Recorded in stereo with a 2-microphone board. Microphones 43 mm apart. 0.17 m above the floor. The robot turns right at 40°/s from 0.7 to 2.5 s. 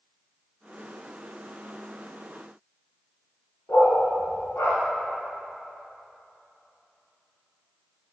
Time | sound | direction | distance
3.7 | a dog barking | 60° left (ahead or behind) | 4.5 m